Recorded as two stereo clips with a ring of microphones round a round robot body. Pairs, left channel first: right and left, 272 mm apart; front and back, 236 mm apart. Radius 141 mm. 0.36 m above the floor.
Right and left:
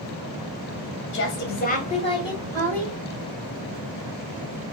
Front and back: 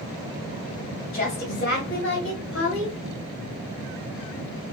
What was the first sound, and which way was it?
A woman speaking, 60° right.